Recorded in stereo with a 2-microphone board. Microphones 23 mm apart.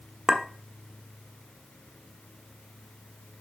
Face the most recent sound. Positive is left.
turn(degrees=-20)  # may be behind; listen again after turning